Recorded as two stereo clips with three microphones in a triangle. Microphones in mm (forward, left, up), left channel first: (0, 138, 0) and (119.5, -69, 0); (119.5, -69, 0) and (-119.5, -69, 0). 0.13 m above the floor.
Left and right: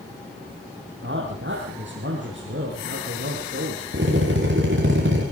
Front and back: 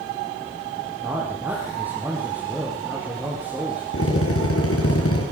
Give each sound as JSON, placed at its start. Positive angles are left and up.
{"t": 1.0, "sound": "a man speaking", "azimuth_deg": -95, "distance_m": 5.0}
{"t": 3.9, "sound": "a drill", "azimuth_deg": -25, "distance_m": 7.0}